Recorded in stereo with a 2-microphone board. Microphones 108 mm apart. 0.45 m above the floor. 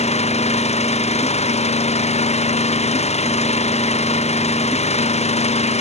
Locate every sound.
0.0 s an engine running: 85° left